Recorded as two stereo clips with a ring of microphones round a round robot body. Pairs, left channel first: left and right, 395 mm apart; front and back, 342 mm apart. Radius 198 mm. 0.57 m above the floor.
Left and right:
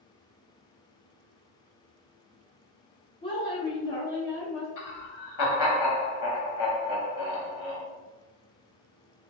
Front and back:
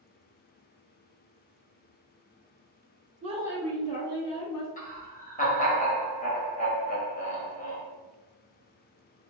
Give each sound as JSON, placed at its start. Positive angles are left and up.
{"t": 3.2, "sound": "a woman speaking", "azimuth_deg": 145, "distance_m": 0.7}
{"t": 4.8, "sound": "laughter", "azimuth_deg": 65, "distance_m": 1.2}